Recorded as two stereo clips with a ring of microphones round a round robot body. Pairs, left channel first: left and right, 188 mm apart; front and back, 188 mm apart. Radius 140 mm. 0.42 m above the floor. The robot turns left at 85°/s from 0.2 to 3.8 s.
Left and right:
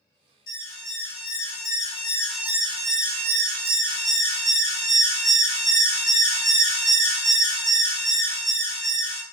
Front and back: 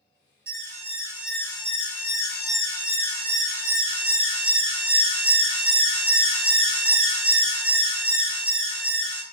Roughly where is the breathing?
No breathing in this recording.